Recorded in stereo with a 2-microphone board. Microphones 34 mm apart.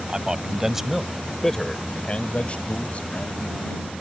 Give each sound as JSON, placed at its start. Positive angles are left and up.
{"t": 0.1, "sound": "a man speaking", "side_deg": -20}